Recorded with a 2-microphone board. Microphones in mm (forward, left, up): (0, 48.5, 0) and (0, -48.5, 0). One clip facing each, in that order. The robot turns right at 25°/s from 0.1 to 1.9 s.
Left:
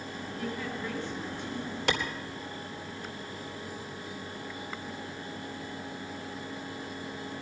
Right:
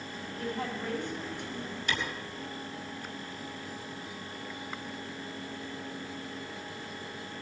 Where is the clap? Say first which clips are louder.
Left 4 dB; 80° left, 3 m.